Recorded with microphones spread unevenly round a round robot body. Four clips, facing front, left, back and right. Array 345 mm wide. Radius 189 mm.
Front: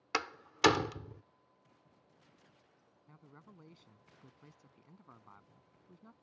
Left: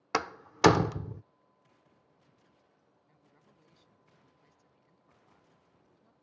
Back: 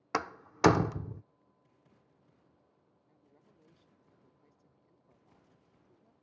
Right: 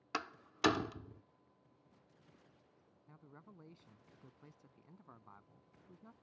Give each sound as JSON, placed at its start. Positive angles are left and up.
{"t": 0.1, "sound": "a door slam", "azimuth_deg": 100}
{"t": 3.1, "sound": "a man speaking", "azimuth_deg": -30}